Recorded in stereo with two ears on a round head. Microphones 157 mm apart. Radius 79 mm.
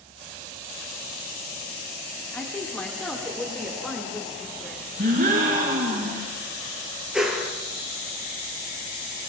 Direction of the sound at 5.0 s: 45° right (ahead or behind).